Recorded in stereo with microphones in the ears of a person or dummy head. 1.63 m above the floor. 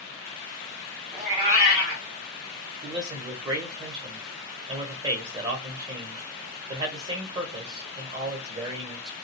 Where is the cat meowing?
25° right (ahead or behind), 1.3 m.